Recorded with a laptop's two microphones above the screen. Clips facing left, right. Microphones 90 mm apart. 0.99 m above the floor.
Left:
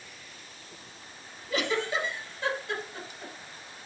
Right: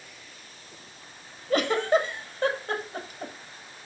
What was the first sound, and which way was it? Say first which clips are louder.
A giggle: right 7 dB; 50° right (ahead or behind).